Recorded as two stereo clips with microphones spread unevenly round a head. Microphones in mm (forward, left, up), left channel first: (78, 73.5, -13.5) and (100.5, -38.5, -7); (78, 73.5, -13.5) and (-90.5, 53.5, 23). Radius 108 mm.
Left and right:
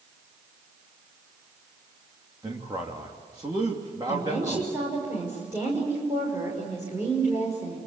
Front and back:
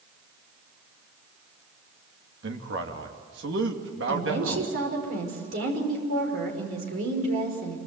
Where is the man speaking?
150° right, 2.5 m.